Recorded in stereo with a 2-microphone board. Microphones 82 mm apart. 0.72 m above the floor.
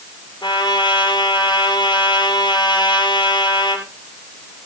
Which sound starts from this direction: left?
A trumpet, at 0.4 s.